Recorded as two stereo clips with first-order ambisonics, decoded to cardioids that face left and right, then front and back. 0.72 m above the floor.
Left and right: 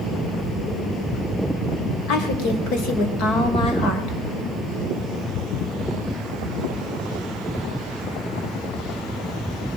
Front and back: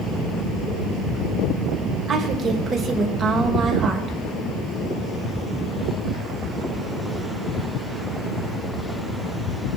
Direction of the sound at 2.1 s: 120° left.